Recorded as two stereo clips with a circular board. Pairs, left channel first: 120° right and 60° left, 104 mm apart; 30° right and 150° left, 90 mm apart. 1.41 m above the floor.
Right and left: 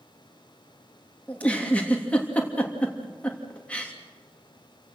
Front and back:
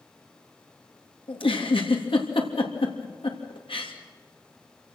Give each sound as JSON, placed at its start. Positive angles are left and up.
{"t": 1.3, "sound": "a giggle", "azimuth_deg": -40, "distance_m": 3.0}